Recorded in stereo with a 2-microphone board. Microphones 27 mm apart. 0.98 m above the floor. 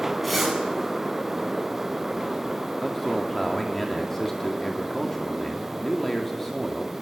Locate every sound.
0.2 s a zipper: 5° left (ahead or behind), 9 m
2.8 s a man speaking: 15° left (ahead or behind), 2.5 m